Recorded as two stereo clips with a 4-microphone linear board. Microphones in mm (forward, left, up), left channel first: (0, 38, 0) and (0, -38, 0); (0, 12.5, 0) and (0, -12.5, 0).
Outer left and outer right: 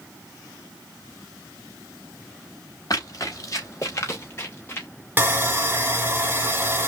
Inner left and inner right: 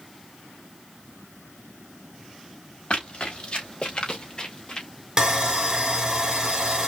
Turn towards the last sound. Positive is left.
turn(degrees=-30)  # may be behind; listen again after turning